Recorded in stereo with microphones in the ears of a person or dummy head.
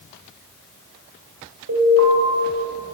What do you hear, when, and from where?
1.7 s an alarm: 65° right (ahead or behind), 8 m